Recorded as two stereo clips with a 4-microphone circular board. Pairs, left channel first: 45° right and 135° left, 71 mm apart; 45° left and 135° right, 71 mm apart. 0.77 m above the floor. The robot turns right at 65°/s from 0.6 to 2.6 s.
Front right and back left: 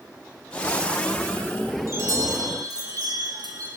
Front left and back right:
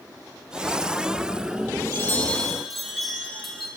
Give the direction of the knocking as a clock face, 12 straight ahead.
No knocking in this recording.